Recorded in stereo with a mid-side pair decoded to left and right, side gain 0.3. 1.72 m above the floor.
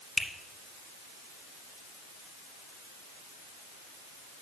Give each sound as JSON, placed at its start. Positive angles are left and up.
{"t": 0.2, "sound": "a finger snap", "azimuth_deg": 65, "distance_m": 1.1}